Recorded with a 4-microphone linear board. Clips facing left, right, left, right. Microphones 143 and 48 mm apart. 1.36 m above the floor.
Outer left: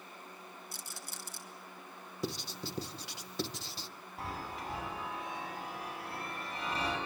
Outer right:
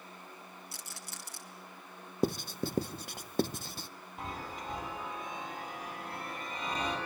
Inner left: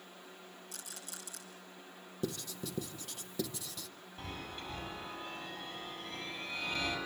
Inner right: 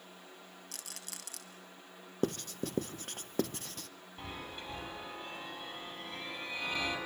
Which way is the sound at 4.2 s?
20° right (ahead or behind).